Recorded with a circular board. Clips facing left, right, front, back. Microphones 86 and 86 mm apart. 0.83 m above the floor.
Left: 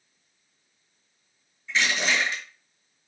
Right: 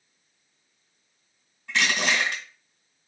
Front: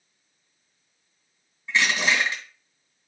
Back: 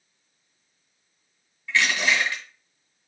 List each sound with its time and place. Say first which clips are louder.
1.7 s crushing: right 1 dB, even; 70° right, 1.9 m